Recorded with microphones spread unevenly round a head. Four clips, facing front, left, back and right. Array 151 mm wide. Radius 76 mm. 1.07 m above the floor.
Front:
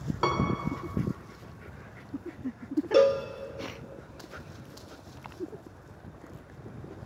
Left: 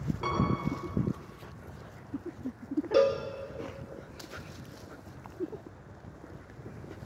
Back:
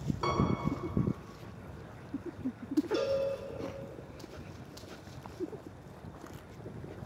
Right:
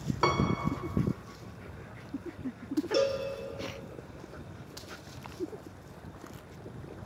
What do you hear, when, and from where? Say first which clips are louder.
0.2 s a piano: right 4 dB, front 4 dB; 35° right, 4 m
2.9 s a cowbell: left 5 dB, front 13 dB; 20° left, 2 m